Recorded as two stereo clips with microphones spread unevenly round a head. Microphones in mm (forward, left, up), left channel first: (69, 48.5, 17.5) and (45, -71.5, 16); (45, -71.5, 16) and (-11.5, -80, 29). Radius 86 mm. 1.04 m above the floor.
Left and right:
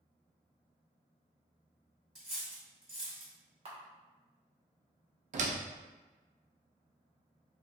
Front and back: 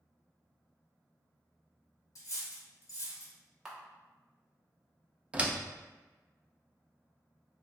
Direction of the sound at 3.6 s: 80° right.